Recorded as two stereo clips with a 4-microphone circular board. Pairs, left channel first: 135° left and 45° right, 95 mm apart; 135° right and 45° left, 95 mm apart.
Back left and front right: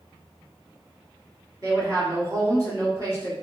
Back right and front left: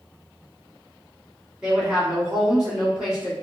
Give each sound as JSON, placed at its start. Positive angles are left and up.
{"t": 1.6, "sound": "a woman speaking", "azimuth_deg": -30, "distance_m": 1.6}